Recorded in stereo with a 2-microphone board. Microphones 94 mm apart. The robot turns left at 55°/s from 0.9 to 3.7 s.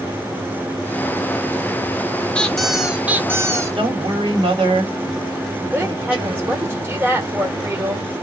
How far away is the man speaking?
About 1.4 m.